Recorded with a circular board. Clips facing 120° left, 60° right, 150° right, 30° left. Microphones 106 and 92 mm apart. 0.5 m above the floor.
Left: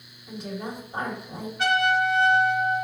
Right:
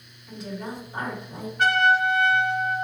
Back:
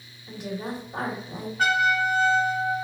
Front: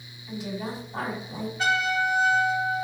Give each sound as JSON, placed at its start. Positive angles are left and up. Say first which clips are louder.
{"t": 0.3, "sound": "a woman speaking", "louder": "left 1 dB, even", "azimuth_deg": -175, "distance_m": 2.5}
{"t": 1.6, "sound": "a trumpet", "louder": "right 2 dB, back 3 dB", "azimuth_deg": -110, "distance_m": 2.0}